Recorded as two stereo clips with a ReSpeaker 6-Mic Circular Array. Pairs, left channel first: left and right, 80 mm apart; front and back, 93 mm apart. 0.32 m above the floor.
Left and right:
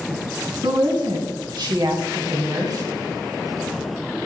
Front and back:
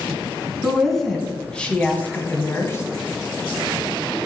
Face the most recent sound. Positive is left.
turn(degrees=-55)